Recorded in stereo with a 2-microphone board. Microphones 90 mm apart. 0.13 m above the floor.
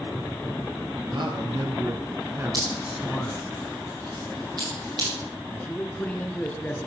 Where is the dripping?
50° right (ahead or behind), 7.5 m.